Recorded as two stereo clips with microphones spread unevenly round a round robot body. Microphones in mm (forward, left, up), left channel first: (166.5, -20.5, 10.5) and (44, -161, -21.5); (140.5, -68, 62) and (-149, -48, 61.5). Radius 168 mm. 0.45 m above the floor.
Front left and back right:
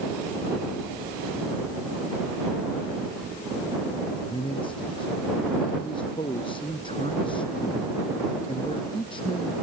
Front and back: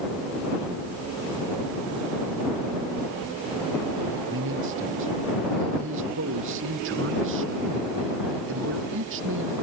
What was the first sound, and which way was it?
A man speaking, 125° left.